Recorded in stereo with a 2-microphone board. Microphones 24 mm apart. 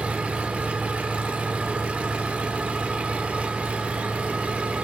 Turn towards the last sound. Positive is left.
turn(degrees=-65)  # may be behind; listen again after turning